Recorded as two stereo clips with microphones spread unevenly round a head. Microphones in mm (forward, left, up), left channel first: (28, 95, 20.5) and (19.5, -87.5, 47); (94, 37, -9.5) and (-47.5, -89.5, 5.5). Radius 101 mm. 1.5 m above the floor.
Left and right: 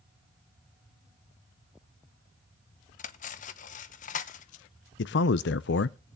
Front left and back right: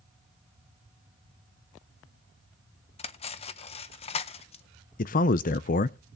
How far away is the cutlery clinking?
About 0.6 m.